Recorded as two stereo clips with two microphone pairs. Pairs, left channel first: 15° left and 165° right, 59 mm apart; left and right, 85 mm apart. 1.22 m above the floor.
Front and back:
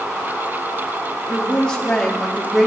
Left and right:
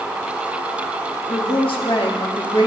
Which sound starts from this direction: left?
A woman speaking, at 1.3 s.